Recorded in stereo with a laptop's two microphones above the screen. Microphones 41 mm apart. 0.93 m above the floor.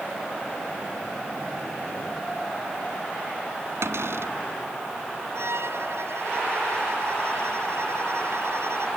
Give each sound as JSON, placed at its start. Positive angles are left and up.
{"t": 3.8, "sound": "a cupboard door", "side_deg": -80}
{"t": 5.3, "sound": "a violin", "side_deg": -75}